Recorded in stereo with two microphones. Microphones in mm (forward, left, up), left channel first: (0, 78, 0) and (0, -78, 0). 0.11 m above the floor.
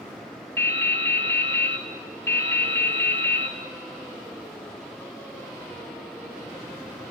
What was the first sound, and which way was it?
Dripping, 15° left (ahead or behind).